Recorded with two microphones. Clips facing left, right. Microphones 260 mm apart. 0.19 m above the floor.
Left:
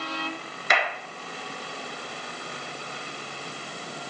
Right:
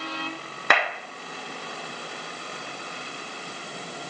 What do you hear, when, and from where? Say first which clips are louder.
0.7 s a clap: right 2 dB; 65° right (ahead or behind), 1.8 m